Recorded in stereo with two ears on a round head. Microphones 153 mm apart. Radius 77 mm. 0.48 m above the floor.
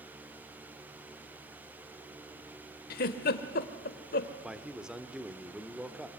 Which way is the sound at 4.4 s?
5° right (ahead or behind).